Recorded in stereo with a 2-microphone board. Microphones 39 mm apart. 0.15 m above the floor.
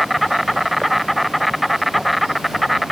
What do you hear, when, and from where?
0.0 s an insect: centre (ahead or behind)